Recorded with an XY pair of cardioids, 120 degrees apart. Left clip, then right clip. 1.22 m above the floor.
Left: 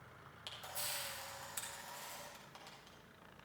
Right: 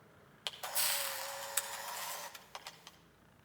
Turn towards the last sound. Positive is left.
turn(degrees=-60)